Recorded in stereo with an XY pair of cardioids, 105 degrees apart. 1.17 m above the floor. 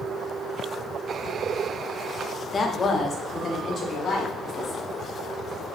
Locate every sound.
2.5 s a woman speaking: 40° left, 1.5 m; by 4.8 s 50° left, 3.5 m